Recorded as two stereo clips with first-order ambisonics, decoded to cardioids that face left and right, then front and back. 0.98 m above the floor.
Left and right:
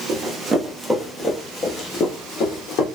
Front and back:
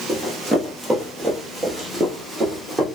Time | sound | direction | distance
0.1 | running footsteps | 100° right | 1.1 m